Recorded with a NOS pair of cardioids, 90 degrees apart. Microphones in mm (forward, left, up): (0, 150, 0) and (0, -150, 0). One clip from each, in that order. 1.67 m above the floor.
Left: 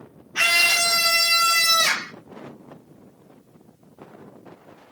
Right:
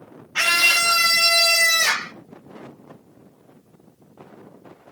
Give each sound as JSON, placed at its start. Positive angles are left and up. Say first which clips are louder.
{"t": 0.3, "sound": "a scream", "louder": "right 1 dB", "azimuth_deg": -50, "distance_m": 0.8}